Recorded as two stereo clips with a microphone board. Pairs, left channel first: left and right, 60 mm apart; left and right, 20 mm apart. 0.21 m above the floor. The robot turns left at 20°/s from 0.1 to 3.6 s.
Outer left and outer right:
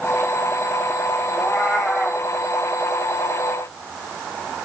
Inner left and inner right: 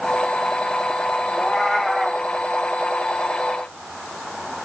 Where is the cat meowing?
15° left (ahead or behind), 5 m; by 2.2 s 5° right (ahead or behind), 5 m.